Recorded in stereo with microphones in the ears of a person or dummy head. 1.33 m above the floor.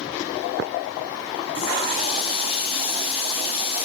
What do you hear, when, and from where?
1.6 s a running tap: 35° left (ahead or behind), 0.7 m